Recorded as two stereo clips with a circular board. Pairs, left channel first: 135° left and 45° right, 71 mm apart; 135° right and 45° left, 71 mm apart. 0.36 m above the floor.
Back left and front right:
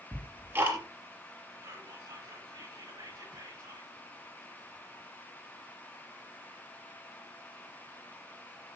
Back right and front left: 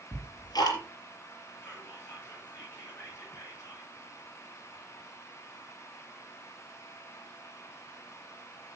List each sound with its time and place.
0.1 s ticking: 105° right, 4.5 m
1.6 s whispering: 75° right, 8.5 m